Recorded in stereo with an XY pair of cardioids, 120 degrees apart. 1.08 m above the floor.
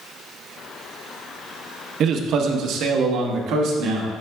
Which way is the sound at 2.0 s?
60° right.